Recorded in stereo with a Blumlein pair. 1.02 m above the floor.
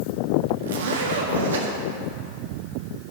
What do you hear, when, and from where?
0.6 s a zipper: 65° right, 1.5 m